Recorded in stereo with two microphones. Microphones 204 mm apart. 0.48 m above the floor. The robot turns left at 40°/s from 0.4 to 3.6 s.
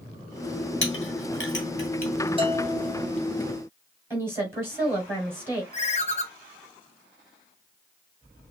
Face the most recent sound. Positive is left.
turn(degrees=30)  # may be behind; listen again after turning